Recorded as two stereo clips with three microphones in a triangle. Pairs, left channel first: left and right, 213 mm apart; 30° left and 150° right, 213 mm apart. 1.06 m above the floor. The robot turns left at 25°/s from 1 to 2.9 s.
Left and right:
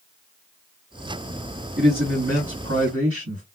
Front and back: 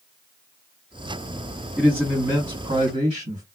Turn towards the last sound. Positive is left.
turn(degrees=-90)